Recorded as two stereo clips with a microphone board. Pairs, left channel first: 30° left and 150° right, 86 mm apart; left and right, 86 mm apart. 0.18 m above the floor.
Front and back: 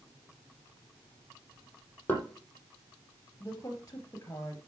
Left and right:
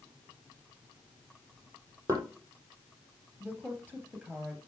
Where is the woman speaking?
20° right, 4 m.